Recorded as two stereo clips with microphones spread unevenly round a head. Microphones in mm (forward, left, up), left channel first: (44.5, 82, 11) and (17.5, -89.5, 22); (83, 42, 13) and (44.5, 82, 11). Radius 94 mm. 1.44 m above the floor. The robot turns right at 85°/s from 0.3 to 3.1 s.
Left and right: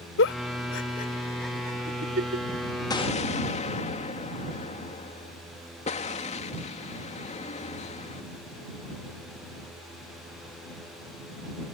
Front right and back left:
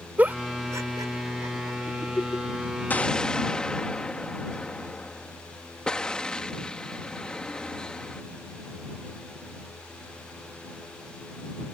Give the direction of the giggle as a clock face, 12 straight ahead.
10 o'clock.